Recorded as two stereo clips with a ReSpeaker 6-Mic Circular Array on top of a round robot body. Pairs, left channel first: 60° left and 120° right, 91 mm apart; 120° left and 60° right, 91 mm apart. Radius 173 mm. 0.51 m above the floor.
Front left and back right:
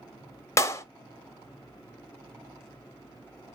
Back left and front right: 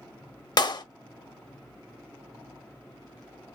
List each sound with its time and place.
0.6 s a clap: 110° left, 0.9 m